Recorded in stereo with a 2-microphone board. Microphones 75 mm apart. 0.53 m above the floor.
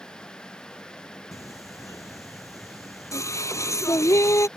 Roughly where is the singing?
Left.